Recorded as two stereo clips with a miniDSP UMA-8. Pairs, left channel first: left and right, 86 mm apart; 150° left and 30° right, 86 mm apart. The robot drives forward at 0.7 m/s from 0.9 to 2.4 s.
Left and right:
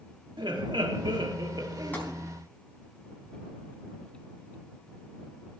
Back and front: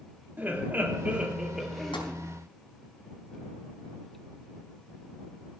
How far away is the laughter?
About 1.5 m.